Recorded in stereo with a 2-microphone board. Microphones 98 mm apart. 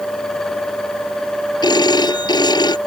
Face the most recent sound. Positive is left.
turn(degrees=45)  # may be behind; listen again after turning